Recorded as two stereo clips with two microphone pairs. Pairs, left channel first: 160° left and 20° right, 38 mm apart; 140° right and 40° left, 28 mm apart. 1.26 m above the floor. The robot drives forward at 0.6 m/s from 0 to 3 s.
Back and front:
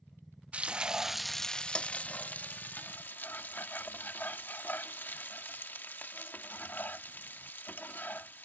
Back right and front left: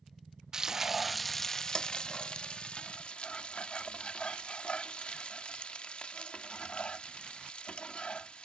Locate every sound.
0.5 s frying: 10° right; by 8.4 s 175° right